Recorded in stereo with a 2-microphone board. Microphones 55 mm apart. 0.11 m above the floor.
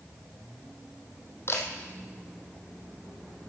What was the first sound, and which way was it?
A camera shutter, 45° left (ahead or behind).